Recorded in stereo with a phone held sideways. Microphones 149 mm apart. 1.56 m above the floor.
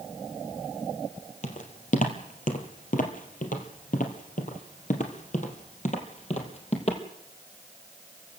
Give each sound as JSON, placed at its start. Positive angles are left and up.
{"t": 1.4, "sound": "footsteps", "side_deg": 50, "distance_m": 3.0}